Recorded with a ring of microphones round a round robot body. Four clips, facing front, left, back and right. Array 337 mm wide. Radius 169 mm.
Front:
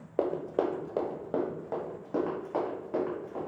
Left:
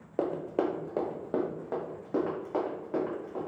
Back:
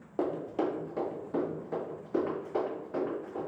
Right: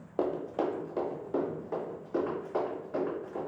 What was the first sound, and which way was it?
Running footsteps, 25° left.